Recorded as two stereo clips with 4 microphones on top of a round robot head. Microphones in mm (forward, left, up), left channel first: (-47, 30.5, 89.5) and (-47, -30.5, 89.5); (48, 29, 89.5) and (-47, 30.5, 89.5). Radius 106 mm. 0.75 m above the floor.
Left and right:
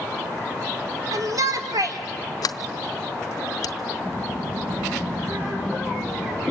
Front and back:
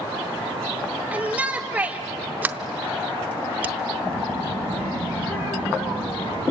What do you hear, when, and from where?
1.1 s a shout: 110° right, 2.5 m
2.4 s a sliding door: 105° left, 0.5 m
4.0 s a child speaking: 55° right, 9 m